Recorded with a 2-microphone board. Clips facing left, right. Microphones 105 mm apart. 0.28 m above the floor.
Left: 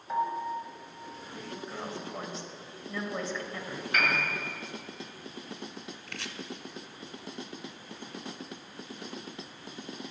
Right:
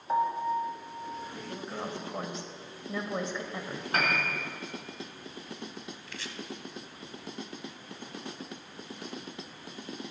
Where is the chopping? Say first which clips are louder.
Left 1 dB; 60° left (ahead or behind), 0.5 m.